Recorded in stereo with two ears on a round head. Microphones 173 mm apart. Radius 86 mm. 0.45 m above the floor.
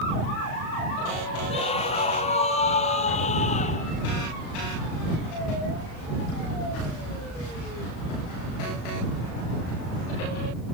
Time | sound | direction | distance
1.5 | a scream | 30° left (ahead or behind) | ?